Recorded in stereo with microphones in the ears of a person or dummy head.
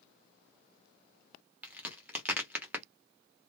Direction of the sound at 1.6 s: 10° right (ahead or behind).